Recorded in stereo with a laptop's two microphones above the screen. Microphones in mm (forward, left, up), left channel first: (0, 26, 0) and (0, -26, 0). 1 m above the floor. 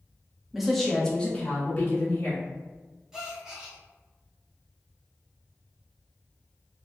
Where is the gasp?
15° right (ahead or behind), 0.6 m.